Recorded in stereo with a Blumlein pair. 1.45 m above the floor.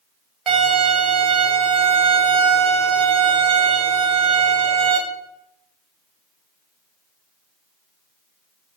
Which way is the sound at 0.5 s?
30° right.